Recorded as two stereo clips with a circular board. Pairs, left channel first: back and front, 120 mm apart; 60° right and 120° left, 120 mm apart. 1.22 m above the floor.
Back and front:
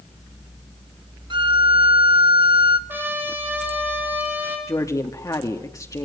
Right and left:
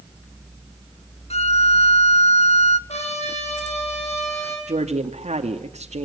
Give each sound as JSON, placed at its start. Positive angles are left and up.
{"t": 1.3, "sound": "a violin", "azimuth_deg": -45, "distance_m": 1.2}
{"t": 2.9, "sound": "a trumpet", "azimuth_deg": -70, "distance_m": 8.5}
{"t": 4.7, "sound": "a woman speaking", "azimuth_deg": 120, "distance_m": 2.0}